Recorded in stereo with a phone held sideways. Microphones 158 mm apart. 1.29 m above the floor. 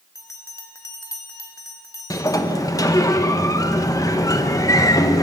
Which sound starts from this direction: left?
A sliding door, at 2.1 s.